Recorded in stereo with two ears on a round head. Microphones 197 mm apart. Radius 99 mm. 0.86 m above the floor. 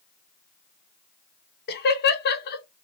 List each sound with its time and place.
1.7 s laughter: 50° left (ahead or behind), 0.8 m